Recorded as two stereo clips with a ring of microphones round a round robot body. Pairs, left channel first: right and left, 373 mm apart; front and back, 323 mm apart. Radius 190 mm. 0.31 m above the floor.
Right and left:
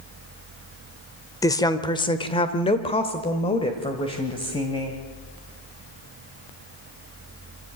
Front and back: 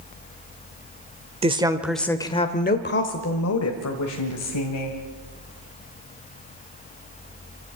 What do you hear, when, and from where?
1.4 s a woman speaking: 155° right, 1.0 m; by 5.0 s 15° right, 2 m